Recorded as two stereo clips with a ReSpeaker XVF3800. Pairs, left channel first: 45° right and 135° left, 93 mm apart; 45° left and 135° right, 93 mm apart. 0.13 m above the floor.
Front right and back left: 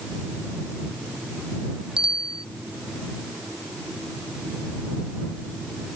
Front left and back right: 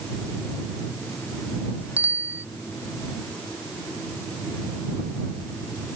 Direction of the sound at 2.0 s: 155° left.